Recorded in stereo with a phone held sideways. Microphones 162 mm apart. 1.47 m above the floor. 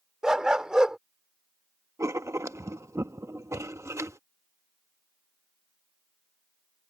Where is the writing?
20° right (ahead or behind).